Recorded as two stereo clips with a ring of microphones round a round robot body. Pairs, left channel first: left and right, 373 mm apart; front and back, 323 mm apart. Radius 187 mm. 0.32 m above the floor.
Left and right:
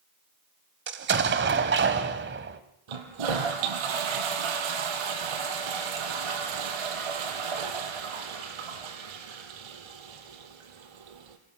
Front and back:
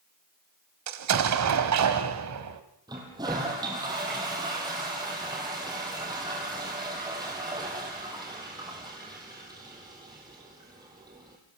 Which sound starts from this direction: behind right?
An explosion, at 0.9 s.